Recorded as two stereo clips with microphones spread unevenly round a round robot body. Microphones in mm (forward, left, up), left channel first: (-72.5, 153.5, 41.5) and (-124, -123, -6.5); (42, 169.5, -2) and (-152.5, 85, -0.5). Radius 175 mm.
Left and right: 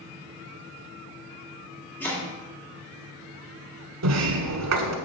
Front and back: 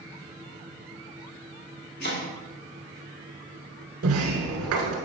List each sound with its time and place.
2.0 s chopping: 10° right, 1.6 m
4.0 s a sliding door: 120° right, 1.4 m